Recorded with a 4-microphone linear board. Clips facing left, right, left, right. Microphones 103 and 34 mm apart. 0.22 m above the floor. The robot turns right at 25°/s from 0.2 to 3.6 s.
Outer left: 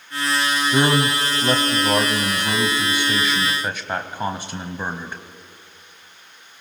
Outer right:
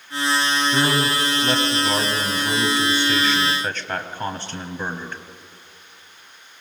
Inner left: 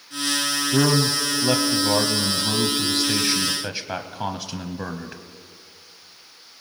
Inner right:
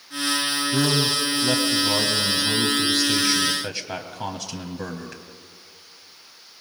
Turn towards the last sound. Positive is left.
turn(degrees=10)  # may be behind; listen again after turning